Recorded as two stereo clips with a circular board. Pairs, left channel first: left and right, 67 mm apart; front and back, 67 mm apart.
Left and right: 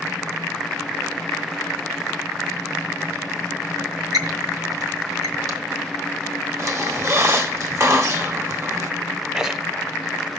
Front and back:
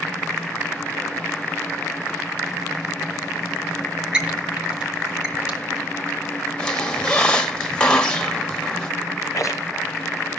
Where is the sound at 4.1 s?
105° right, 2 m.